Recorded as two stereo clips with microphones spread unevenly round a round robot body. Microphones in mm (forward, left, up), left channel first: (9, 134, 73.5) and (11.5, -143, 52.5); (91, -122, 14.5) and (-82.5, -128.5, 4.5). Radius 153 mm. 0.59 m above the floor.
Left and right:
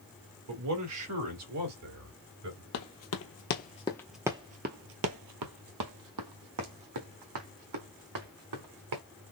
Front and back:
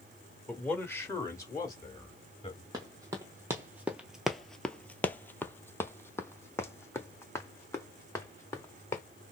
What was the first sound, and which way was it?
A man speaking, 80° right.